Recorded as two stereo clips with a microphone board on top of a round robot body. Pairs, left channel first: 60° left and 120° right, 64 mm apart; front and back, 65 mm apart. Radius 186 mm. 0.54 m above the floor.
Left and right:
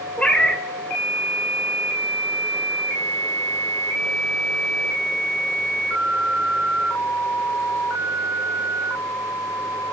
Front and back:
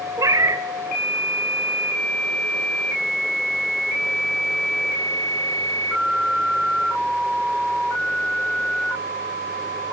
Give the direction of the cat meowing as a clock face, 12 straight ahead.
7 o'clock.